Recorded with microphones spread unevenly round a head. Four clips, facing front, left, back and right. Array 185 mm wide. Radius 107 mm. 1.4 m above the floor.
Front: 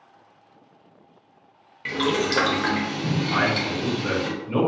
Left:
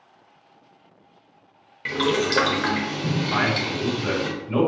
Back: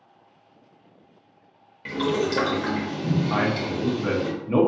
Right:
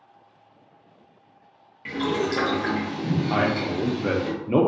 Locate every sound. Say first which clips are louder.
1.9 s boiling: left 2 dB, even; 120° left, 0.7 m
3.3 s a man speaking: right 1 dB, front 1 dB; 90° right, 0.8 m